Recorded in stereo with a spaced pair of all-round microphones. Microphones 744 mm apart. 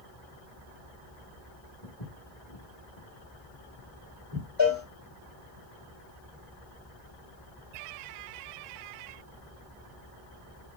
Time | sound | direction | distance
1.8 | footsteps | 45° left (ahead or behind) | 3 m
4.6 | a cowbell | 35° left (ahead or behind) | 1.9 m